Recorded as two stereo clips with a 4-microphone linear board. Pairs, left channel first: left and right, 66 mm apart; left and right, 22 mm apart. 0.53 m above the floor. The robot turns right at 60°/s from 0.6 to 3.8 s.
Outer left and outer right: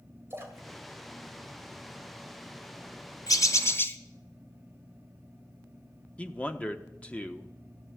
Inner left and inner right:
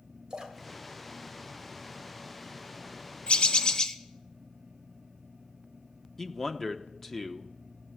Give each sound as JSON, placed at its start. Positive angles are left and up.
{"t": 0.3, "sound": "a splash", "side_deg": -40, "distance_m": 3.0}
{"t": 3.3, "sound": "a bird", "azimuth_deg": 110, "distance_m": 1.1}
{"t": 6.2, "sound": "a man speaking", "side_deg": 20, "distance_m": 0.9}